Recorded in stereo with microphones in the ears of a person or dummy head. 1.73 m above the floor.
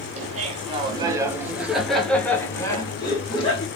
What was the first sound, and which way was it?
Laughter, 40° right (ahead or behind).